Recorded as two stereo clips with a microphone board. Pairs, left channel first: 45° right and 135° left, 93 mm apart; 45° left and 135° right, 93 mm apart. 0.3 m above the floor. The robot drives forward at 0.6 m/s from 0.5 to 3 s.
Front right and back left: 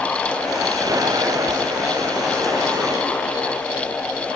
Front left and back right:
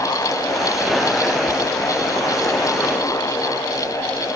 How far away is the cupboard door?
I don't hear a cupboard door.